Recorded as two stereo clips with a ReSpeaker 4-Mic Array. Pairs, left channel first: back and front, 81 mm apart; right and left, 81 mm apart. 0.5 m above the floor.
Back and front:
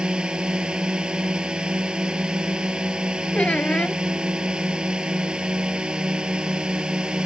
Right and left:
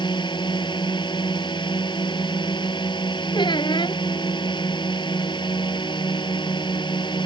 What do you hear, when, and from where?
0.0 s a drone: 80° right
3.3 s a squeak: 105° right